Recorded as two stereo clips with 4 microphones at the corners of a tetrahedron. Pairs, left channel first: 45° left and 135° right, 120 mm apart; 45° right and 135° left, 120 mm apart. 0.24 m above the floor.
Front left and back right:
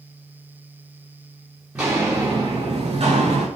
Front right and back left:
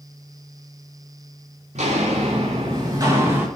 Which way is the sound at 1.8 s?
150° left.